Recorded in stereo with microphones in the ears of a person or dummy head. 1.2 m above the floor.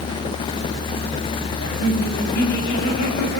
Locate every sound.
1.6 s laughter: 65° left (ahead or behind), 7 m